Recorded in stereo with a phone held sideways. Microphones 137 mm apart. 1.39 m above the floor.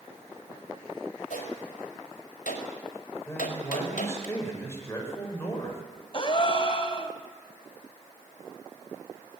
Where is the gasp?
40° left (ahead or behind), 2 m.